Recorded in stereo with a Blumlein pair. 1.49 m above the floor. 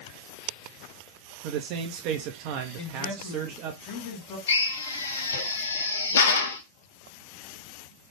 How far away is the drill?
About 0.5 m.